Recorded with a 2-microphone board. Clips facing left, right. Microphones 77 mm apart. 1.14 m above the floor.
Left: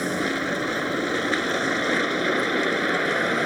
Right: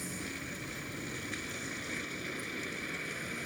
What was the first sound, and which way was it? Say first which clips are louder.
A vehicle: left 17 dB; 75° left (ahead or behind).